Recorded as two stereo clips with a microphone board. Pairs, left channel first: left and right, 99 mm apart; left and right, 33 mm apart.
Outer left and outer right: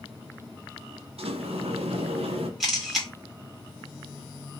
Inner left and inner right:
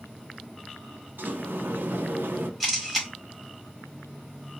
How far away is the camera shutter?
About 1.3 m.